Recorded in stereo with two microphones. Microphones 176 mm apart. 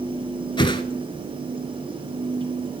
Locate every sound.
0.6 s a whoosh: 30° left (ahead or behind), 0.6 m